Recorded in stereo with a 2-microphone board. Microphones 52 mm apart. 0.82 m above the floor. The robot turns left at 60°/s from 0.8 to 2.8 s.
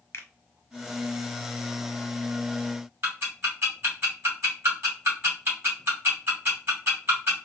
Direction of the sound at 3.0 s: 50° right (ahead or behind).